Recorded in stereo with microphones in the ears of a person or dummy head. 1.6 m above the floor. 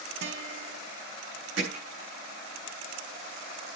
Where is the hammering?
85° right, 8 m.